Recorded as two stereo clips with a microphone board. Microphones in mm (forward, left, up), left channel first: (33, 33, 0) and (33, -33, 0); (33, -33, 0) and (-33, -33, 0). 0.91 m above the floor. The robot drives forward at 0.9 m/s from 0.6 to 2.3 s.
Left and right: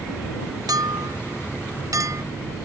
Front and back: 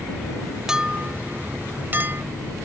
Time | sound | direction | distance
0.7 | a clink | 100° right | ?